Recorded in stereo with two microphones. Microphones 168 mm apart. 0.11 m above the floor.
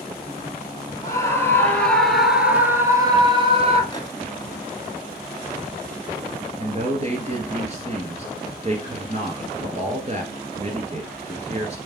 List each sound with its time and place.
1.0 s a scream: 20° left (ahead or behind), 2 m; by 3.8 s 40° right (ahead or behind), 1.8 m
3.9 s a microwave: 25° left (ahead or behind), 1.0 m
6.6 s a man speaking: 40° right (ahead or behind), 1.5 m